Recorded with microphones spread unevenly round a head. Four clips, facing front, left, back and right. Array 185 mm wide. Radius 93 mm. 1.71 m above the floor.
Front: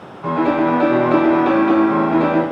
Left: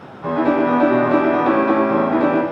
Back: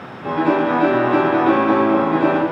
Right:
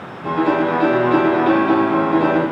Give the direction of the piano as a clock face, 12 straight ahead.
11 o'clock.